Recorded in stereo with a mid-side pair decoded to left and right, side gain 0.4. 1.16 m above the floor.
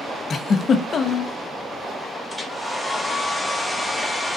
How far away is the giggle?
About 0.8 m.